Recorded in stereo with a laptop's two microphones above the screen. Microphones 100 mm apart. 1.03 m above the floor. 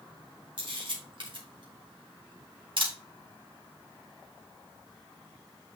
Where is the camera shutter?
55° right (ahead or behind), 1.7 m.